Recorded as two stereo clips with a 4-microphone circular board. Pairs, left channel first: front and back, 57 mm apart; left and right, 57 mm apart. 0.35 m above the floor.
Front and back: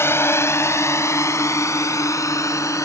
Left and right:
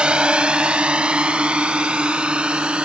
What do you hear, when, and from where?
0.0 s a drone: 20° right